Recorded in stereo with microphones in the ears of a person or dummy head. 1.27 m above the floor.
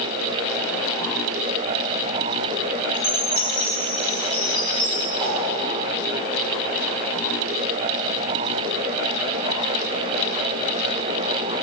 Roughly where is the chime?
Left.